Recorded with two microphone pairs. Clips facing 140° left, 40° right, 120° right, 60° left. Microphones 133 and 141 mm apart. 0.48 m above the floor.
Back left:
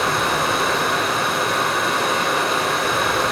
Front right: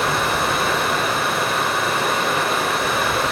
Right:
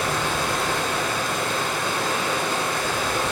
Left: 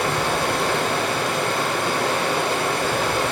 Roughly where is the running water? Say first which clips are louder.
Even, left 3 dB; ahead left.